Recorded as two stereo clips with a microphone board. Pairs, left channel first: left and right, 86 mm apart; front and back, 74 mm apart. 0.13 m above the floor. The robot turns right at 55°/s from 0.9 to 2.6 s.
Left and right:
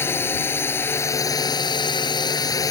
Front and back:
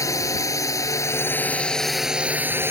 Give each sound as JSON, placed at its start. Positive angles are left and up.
{"t": 0.0, "sound": "a drone", "azimuth_deg": 30}